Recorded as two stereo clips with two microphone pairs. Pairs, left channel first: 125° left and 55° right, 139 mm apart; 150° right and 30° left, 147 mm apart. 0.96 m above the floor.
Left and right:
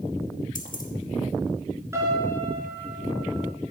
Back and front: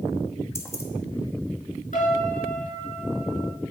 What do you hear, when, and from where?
0.6 s keys jangling: 140° left, 1.1 m
1.9 s a piano: 125° right, 3 m